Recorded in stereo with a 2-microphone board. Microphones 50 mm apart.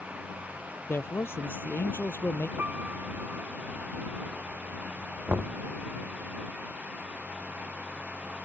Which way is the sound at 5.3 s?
45° right (ahead or behind).